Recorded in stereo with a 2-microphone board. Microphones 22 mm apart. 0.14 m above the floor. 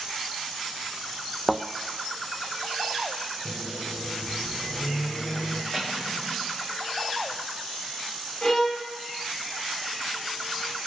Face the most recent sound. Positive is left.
turn(degrees=30)  # may be behind; listen again after turning